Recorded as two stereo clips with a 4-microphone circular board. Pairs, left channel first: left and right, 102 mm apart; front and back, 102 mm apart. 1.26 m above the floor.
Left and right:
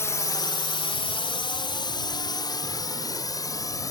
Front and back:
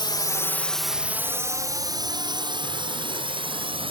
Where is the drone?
30° left; by 3.9 s 145° left.